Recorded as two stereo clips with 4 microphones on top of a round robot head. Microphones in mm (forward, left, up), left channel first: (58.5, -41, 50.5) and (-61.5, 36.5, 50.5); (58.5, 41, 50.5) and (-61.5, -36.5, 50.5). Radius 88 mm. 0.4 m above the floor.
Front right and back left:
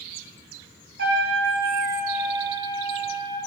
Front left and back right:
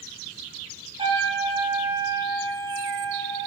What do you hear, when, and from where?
1.0 s a trumpet: 150° left, 2.5 m